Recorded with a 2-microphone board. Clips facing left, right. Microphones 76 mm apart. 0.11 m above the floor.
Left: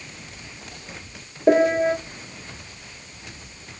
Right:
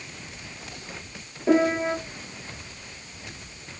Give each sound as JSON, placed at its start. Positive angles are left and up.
{"t": 1.5, "sound": "a piano", "side_deg": 40, "distance_m": 2.0}